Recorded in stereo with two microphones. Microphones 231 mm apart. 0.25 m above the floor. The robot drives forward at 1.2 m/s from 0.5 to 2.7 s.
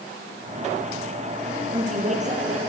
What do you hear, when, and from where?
1.7 s a woman speaking: 35° right (ahead or behind), 5.5 m; by 2.6 s 30° right (ahead or behind), 6.5 m